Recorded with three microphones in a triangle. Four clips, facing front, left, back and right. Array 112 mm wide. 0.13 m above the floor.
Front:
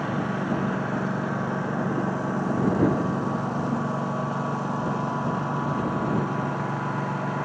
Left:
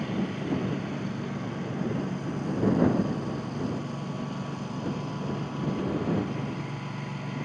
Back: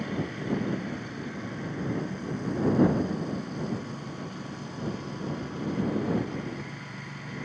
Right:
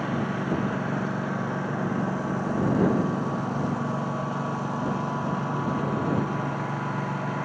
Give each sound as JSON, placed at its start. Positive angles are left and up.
{"t": 0.0, "sound": "a lawn mower", "azimuth_deg": -30}